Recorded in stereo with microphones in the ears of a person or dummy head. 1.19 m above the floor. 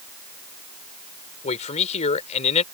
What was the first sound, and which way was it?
A man speaking, 35° left (ahead or behind).